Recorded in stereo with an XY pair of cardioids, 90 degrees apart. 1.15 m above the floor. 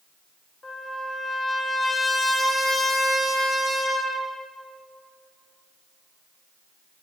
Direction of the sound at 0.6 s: 35° left.